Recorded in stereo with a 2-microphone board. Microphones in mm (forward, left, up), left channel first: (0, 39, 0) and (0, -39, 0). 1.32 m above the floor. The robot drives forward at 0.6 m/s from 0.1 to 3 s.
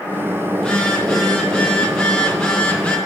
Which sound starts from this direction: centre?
A phone buzzing, at 0.6 s.